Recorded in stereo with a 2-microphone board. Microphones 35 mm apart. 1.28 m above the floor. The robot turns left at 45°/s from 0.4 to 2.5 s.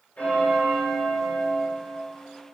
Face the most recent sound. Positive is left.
turn(degrees=5)